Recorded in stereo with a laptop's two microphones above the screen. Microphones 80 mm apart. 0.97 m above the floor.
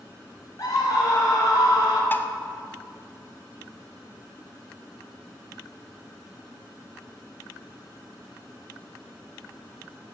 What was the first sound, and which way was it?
A scream, 50° left (ahead or behind).